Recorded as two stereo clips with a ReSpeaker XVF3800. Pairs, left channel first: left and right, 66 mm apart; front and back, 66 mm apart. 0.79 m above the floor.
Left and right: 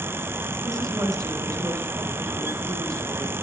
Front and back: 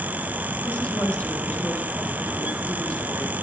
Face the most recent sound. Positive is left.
turn(degrees=-60)